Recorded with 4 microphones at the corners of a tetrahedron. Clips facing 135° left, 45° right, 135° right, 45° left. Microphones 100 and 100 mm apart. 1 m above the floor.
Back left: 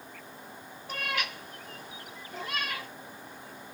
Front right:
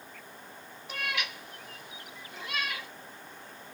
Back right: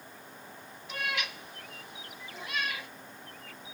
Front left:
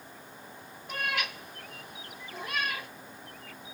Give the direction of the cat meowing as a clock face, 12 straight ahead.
9 o'clock.